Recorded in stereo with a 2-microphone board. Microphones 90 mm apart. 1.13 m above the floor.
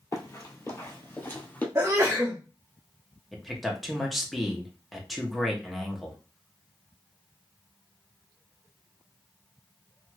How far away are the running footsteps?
About 1.4 m.